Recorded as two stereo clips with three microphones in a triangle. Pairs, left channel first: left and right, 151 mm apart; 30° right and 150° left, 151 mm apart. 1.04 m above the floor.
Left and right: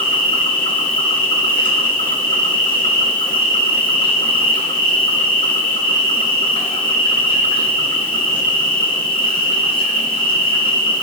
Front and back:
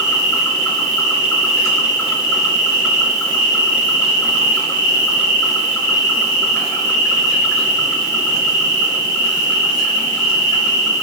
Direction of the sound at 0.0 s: 35° left.